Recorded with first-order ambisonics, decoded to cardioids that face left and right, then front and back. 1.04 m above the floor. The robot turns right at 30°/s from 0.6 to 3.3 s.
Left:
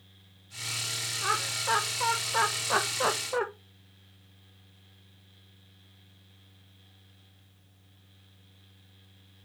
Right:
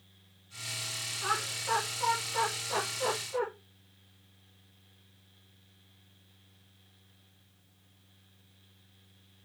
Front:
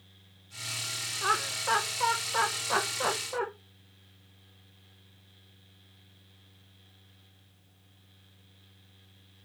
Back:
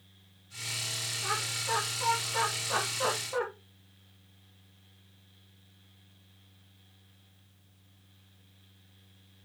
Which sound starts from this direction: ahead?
Laughter, at 1.2 s.